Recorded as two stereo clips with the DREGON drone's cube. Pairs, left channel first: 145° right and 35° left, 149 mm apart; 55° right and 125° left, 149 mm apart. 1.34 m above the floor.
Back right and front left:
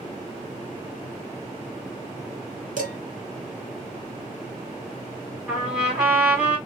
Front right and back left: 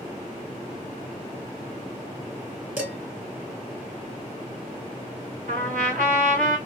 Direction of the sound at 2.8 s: 50° left.